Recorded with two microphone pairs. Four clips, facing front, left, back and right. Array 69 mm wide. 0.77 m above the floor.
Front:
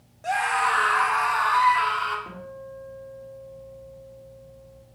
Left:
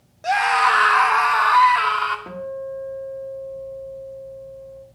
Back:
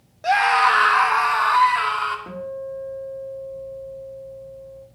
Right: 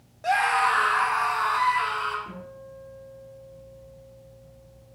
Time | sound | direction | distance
0.2 | a scream | 175° left | 1.1 m
2.3 | a guitar | 100° left | 1.7 m